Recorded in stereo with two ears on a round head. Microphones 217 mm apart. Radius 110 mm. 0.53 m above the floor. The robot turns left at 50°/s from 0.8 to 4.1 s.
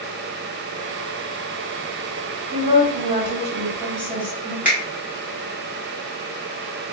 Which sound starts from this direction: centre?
A finger snap, at 4.7 s.